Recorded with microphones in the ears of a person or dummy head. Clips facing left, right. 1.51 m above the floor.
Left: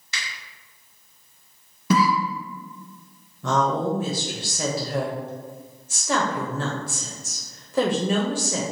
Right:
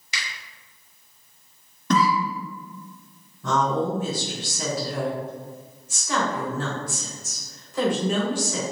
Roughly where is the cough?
Centre.